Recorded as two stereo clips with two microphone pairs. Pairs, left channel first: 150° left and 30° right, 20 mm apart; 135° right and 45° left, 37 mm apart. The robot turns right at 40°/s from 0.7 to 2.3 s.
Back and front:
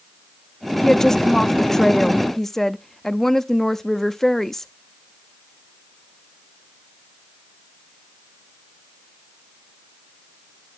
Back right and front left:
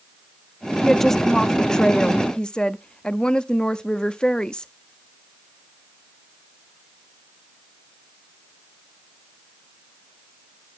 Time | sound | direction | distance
0.8 | a woman speaking | 140° left | 0.5 m